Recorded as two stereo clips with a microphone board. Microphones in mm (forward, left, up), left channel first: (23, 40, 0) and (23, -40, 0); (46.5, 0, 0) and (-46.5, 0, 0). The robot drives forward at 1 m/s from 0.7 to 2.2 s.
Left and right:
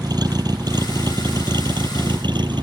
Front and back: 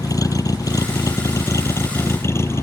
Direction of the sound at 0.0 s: 55° right.